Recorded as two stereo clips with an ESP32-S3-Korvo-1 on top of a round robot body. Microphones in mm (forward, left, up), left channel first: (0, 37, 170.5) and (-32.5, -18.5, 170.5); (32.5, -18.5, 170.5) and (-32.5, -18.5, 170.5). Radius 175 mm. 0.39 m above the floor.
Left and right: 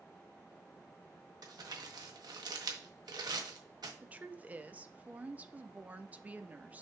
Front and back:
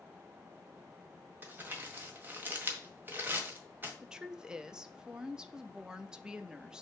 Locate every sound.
1.4 s crumpling: 120° right, 1.5 m
4.0 s a woman speaking: 120° right, 0.9 m